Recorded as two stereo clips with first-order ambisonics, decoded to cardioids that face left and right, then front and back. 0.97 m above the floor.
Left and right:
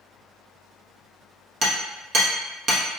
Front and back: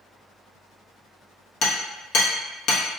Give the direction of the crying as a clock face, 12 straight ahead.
No crying in this recording.